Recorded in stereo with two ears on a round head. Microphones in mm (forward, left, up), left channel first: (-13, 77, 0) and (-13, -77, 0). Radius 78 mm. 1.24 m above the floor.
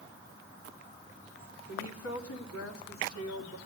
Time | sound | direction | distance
1.7 | a woman speaking | 80° left | 2 m